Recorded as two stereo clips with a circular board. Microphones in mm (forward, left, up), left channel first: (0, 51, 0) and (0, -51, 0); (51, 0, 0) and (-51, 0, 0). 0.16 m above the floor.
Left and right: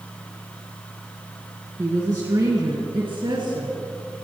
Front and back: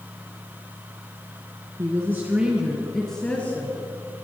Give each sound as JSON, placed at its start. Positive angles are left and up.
{"t": 1.8, "sound": "a woman speaking", "azimuth_deg": -135, "distance_m": 2.0}